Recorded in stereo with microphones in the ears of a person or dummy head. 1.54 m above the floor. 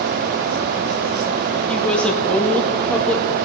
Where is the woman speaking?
10° left (ahead or behind), 1.9 m.